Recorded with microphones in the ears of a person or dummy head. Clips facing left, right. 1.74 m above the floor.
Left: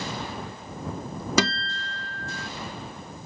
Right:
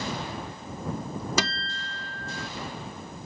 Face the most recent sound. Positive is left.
turn(degrees=60)  # may be behind; listen again after turning